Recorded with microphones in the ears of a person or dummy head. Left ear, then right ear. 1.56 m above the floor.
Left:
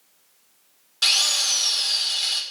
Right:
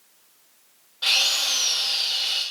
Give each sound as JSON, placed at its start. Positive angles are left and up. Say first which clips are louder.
{"t": 1.0, "sound": "a drill", "louder": "left 1 dB", "side_deg": 75, "distance_m": 5.0}